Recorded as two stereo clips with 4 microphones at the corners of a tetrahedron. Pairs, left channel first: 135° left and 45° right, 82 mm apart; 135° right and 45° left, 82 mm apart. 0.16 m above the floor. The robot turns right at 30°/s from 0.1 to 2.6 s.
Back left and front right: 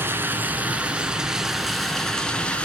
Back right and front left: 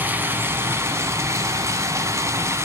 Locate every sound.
0.0 s running water: 5° right, 0.9 m; by 2.6 s 70° left, 0.9 m